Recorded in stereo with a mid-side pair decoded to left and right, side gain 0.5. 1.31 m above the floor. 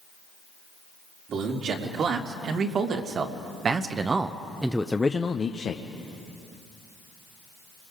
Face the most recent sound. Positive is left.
turn(degrees=55)